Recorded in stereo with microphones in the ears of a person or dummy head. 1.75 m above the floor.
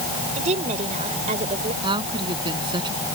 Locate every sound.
0.4 s a woman speaking: 40° right (ahead or behind)
1.8 s a woman speaking: 25° right (ahead or behind)